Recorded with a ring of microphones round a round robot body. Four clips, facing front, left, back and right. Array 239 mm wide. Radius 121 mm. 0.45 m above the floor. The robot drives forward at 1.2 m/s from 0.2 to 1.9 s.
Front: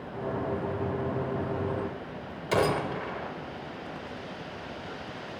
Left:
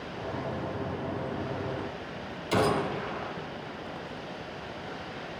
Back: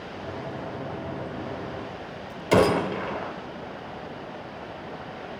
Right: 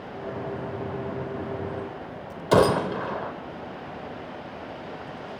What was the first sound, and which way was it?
A gunshot, 120° right.